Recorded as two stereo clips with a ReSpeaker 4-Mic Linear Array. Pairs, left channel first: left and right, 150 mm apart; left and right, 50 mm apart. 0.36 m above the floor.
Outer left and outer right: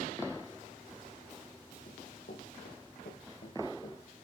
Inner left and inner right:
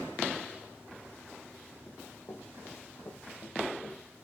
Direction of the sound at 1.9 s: 75° left (ahead or behind).